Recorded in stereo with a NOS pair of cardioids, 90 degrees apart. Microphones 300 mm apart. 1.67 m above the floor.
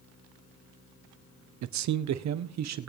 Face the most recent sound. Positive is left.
turn(degrees=-60)